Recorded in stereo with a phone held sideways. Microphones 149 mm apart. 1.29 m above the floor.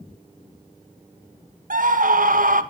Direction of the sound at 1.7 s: 65° right (ahead or behind).